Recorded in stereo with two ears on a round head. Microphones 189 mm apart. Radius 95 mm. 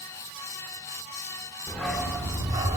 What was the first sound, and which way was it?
A dog barking, 5° left (ahead or behind).